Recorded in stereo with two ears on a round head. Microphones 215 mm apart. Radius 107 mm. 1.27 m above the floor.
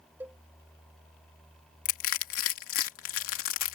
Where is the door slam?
I don't hear a door slam.